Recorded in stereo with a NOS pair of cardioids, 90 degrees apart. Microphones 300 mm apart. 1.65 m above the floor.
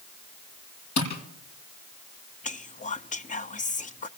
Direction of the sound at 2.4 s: 25° left.